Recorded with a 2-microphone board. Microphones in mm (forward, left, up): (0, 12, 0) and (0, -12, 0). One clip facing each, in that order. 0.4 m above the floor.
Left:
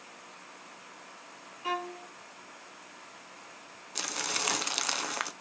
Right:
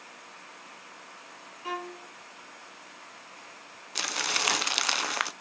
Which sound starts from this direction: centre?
A violin, at 1.6 s.